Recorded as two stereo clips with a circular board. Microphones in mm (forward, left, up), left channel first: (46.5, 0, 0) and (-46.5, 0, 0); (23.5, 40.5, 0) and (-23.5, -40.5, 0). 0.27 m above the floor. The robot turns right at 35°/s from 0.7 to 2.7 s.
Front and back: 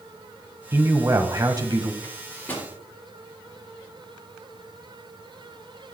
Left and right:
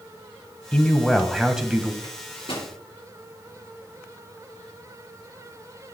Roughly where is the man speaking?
Behind left.